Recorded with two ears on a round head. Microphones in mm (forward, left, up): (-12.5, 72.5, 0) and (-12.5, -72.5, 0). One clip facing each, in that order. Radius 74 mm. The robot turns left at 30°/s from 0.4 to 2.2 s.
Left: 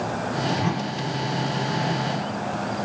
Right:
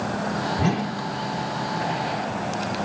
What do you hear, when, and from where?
0.6 s a whoosh: 45° right (ahead or behind), 1.6 m; by 1.0 s 30° right (ahead or behind), 1.6 m